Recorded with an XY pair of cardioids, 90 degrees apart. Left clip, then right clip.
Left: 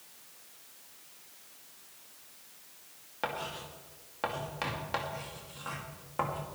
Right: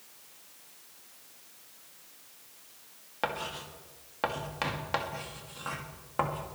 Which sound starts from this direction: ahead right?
Writing, at 3.2 s.